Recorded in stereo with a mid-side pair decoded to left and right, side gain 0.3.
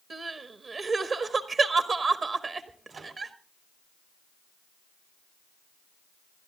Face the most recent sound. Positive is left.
turn(degrees=-65)